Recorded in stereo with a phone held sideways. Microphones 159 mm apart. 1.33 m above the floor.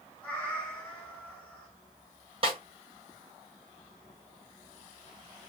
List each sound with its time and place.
0.2 s a cat meowing: 10° left (ahead or behind), 1.6 m
2.4 s a snare drum: 40° right (ahead or behind), 1.1 m